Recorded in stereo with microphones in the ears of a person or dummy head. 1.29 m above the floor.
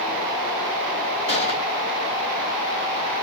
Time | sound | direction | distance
1.3 | a gunshot | 40° left (ahead or behind) | 2.5 m